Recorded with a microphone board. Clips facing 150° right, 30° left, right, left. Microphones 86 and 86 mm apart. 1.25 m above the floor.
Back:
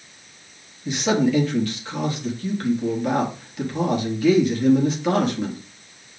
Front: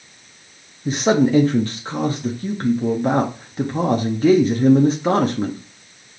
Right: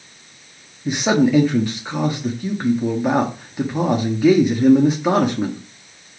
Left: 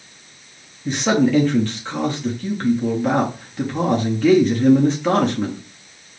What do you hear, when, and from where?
0.8 s a man speaking: 15° right, 0.7 m